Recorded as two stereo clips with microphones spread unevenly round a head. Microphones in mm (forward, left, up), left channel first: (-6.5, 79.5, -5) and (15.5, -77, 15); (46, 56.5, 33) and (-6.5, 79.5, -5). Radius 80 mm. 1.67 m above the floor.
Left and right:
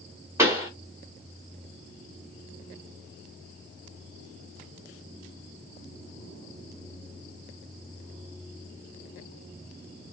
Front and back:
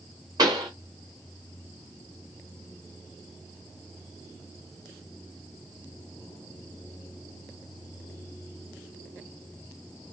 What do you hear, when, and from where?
0.4 s a pop: 135° right, 1.5 m